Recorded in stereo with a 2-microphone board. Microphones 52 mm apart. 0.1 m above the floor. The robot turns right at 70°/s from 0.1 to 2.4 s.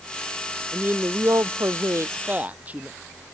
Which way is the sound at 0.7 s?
145° right.